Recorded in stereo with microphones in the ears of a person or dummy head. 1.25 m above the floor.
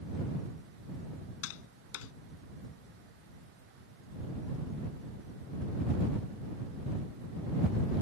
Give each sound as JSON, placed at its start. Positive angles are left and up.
{"t": 1.4, "sound": "tapping", "side_deg": 80}